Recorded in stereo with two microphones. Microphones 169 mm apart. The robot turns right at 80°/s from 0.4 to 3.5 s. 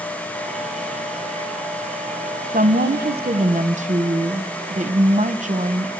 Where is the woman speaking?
125° right, 1.1 m; by 5.9 s 45° right, 1.1 m.